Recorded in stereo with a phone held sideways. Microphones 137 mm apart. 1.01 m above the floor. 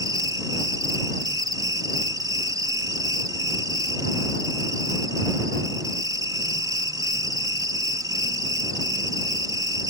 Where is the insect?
30° right (ahead or behind).